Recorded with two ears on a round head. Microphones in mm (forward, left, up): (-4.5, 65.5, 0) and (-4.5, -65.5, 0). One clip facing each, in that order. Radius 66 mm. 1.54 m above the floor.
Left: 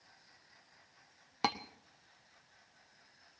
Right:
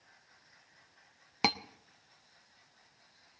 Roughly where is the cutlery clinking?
Centre.